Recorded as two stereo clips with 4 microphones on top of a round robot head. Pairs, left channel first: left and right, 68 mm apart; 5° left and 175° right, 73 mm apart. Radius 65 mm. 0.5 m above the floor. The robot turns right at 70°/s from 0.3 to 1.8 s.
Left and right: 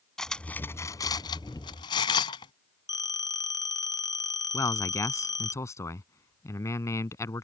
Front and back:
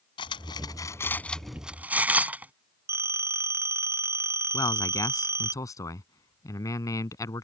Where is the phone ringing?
125° left.